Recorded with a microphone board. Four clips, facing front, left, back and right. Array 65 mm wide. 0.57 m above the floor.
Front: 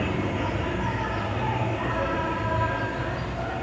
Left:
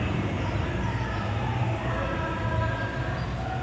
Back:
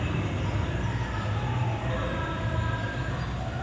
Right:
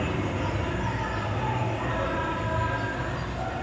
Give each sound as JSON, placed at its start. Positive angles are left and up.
{"t": 0.0, "sound": "an insect", "azimuth_deg": -5, "distance_m": 5.5}